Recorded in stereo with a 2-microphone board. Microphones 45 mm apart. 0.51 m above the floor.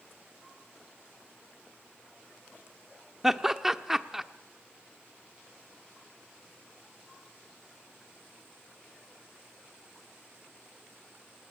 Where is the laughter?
5° right (ahead or behind), 1.0 m.